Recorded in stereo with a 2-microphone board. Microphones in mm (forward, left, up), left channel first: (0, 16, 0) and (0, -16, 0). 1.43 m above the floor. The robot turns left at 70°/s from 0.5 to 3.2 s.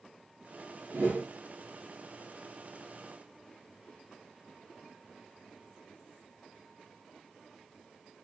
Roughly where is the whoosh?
Right.